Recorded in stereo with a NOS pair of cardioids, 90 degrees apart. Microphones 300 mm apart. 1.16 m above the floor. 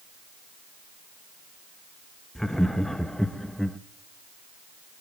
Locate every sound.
2.4 s laughter: straight ahead, 1.3 m